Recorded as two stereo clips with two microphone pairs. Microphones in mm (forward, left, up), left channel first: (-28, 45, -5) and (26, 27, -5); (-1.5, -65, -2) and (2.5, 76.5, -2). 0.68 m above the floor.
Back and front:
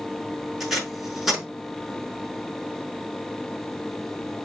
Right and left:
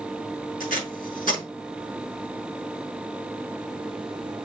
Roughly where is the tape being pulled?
Right.